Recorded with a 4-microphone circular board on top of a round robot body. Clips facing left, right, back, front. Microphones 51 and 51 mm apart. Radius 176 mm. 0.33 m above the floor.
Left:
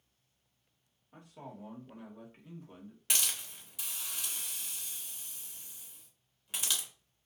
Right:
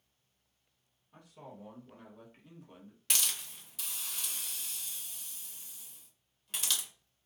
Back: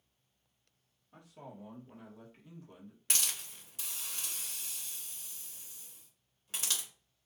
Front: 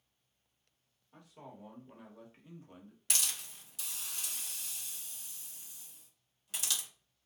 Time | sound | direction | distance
1.1 | a man speaking | 105° left | 1.5 m
3.1 | a hiss | 160° left | 1.7 m